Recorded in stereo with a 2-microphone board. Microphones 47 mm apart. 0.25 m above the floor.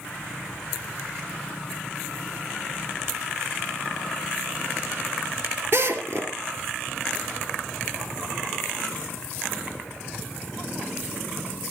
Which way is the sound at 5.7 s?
50° right (ahead or behind).